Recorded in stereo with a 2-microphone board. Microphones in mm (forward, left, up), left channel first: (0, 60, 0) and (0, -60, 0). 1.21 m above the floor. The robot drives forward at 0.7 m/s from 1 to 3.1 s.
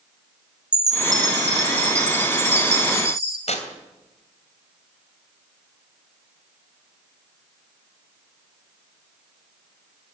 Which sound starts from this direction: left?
Tearing paper, at 3.5 s.